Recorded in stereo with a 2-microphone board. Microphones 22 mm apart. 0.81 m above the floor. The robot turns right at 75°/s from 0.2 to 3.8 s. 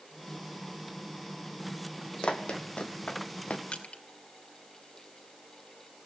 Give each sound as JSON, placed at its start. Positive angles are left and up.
{"t": 2.2, "sound": "running footsteps", "side_deg": 55, "distance_m": 1.7}
{"t": 3.7, "sound": "crushing", "side_deg": 65, "distance_m": 2.5}